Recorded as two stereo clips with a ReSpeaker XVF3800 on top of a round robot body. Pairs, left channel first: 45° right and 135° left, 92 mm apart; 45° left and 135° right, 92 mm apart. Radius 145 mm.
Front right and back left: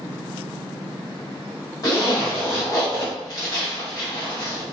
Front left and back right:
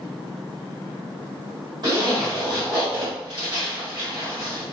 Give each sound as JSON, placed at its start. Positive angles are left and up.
{"t": 1.8, "sound": "a zipper", "azimuth_deg": -95, "distance_m": 1.9}